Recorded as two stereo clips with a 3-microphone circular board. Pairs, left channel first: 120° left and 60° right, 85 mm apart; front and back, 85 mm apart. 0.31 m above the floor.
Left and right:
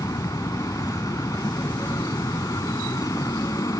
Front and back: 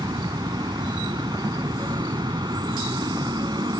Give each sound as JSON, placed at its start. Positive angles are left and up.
{"t": 0.0, "sound": "an aircraft", "azimuth_deg": 160}